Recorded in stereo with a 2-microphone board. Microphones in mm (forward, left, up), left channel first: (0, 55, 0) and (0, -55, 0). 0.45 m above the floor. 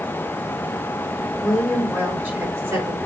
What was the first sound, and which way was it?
A woman speaking, centre (ahead or behind).